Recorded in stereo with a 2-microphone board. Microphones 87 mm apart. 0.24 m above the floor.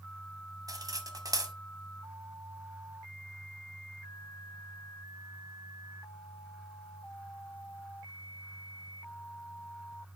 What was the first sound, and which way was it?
Cutlery clinking, 45° right (ahead or behind).